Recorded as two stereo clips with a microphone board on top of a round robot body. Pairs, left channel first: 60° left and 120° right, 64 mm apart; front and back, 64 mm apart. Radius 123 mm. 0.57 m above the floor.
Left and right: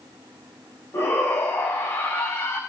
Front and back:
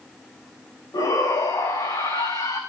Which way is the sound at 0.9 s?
15° left.